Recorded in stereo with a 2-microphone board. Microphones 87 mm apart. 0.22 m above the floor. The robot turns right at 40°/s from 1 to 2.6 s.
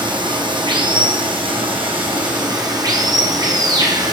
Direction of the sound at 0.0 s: 115° right.